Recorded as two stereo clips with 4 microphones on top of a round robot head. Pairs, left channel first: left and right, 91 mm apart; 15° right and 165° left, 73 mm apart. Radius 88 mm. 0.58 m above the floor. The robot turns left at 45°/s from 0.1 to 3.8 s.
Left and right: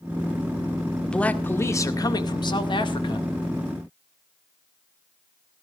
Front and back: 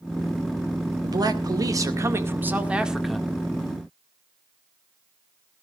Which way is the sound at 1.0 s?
170° left.